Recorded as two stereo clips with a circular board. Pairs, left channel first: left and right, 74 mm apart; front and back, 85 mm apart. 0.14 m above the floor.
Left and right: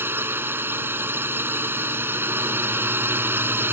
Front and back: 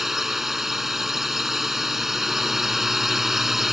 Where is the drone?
95° right.